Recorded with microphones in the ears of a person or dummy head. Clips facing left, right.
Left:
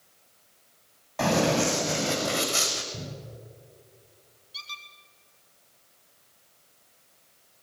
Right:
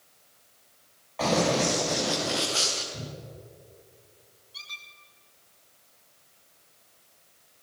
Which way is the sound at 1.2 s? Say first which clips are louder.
Left 1 dB; 60° left (ahead or behind).